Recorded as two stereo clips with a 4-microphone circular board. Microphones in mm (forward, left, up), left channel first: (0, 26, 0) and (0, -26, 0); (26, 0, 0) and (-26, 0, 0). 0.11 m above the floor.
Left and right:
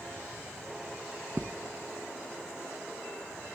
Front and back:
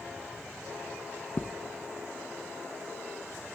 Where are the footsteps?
30° right, 0.6 m.